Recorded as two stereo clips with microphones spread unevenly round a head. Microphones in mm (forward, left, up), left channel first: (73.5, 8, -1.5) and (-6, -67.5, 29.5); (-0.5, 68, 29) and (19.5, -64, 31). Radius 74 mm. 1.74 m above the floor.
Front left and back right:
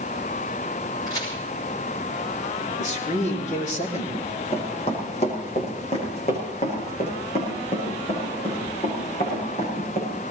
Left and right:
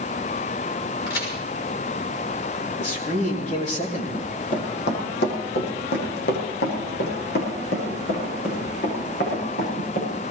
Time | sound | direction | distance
1.1 | a crack | 115° left | 6 m
2.8 | a man speaking | 65° left | 3.5 m
4.1 | running footsteps | 105° left | 4 m